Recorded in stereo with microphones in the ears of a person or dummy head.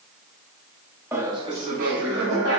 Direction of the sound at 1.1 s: 10° right (ahead or behind).